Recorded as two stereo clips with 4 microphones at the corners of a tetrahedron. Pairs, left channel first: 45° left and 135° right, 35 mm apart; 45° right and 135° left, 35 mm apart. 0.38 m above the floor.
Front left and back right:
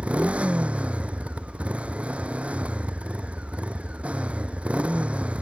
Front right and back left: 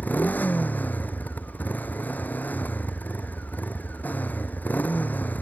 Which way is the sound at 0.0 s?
80° right.